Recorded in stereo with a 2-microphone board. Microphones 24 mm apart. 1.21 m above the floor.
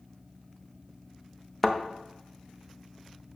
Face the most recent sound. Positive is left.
turn(degrees=5)  # may be behind; listen again after turning